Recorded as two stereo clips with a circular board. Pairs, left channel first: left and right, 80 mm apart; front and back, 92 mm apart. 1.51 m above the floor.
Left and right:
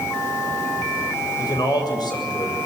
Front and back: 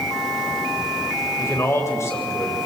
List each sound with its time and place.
1.4 s a man speaking: 60° left, 7.5 m